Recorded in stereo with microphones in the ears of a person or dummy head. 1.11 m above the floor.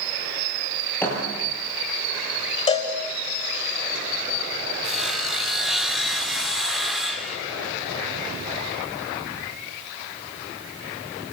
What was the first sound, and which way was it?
A thud, 10° left (ahead or behind).